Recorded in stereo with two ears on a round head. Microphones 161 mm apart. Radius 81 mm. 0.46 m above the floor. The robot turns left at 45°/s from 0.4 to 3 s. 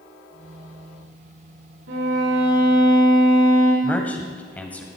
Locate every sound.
1.9 s a violin: 85° right, 7.5 m; by 3.7 s 135° right, 7.5 m
3.8 s a man speaking: 10° left (ahead or behind), 2.5 m